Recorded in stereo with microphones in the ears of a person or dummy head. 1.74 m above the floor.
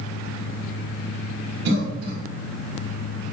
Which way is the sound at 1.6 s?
65° right (ahead or behind).